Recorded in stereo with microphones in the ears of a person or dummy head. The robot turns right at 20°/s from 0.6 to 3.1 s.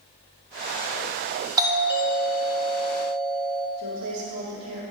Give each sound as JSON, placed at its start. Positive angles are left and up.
{"t": 1.6, "sound": "a doorbell", "azimuth_deg": -20, "distance_m": 1.1}
{"t": 3.8, "sound": "a woman speaking", "side_deg": -85, "distance_m": 2.0}